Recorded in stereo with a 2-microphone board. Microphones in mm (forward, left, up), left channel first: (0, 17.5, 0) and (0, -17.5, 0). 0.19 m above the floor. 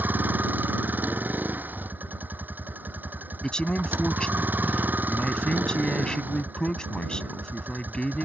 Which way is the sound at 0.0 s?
70° right (ahead or behind).